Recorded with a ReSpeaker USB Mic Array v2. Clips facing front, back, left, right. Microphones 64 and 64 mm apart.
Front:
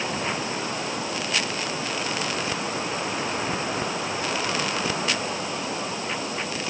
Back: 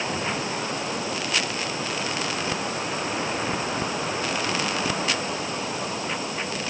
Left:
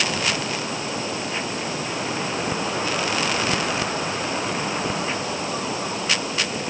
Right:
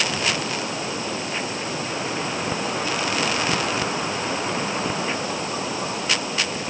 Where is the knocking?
I don't hear knocking.